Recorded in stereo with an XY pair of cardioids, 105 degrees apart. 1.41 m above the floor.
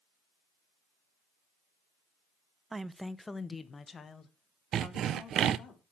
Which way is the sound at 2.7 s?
25° right.